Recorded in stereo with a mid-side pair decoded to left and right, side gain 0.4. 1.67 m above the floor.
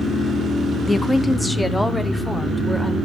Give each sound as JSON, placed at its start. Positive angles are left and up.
{"t": 0.9, "sound": "a woman speaking", "azimuth_deg": 20, "distance_m": 0.6}